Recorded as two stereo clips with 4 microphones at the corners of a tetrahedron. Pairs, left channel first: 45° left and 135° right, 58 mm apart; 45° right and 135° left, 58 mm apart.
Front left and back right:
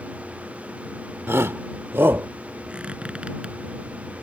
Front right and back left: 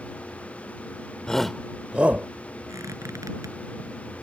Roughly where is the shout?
Behind right.